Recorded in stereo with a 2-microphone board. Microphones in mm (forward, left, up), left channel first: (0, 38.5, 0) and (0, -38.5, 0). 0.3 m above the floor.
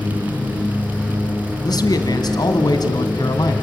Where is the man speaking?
65° left (ahead or behind), 2 m.